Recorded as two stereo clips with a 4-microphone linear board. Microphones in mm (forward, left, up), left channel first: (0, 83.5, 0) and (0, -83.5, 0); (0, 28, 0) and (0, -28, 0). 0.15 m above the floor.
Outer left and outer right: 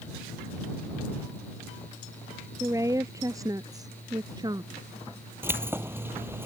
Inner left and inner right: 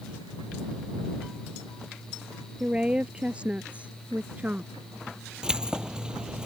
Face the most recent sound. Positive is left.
turn(degrees=-15)  # may be behind; listen again after turning